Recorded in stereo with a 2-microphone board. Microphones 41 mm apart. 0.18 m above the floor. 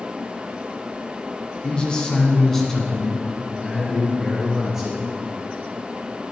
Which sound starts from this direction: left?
A man speaking, at 1.6 s.